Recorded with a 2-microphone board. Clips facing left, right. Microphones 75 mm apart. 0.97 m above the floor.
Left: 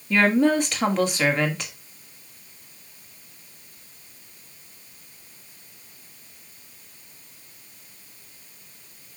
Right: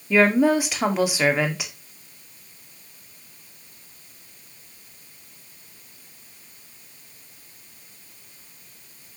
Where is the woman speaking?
5° right (ahead or behind), 1.8 m.